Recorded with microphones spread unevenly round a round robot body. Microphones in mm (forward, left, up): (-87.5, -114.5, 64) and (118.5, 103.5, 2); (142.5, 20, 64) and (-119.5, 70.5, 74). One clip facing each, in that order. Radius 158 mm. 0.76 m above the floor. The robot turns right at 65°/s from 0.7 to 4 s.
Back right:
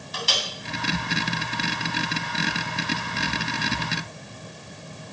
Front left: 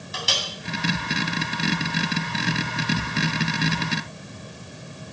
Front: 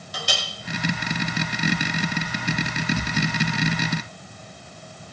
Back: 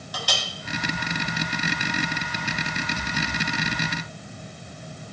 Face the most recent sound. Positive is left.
turn(degrees=-90)